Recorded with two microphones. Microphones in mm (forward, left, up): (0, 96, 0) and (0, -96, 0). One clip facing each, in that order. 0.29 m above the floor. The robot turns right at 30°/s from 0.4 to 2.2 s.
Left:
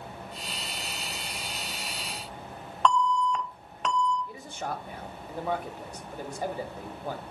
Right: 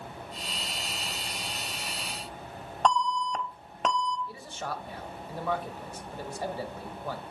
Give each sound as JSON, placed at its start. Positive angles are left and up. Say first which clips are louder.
{"t": 2.9, "sound": "an alarm", "louder": "left 2 dB", "side_deg": -45, "distance_m": 0.8}
{"t": 4.3, "sound": "a man speaking", "louder": "left 2 dB", "side_deg": 15, "distance_m": 0.9}